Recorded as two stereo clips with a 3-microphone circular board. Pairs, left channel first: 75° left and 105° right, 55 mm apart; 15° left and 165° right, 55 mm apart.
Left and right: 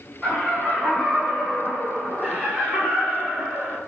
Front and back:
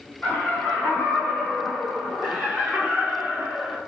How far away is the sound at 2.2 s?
About 1.4 m.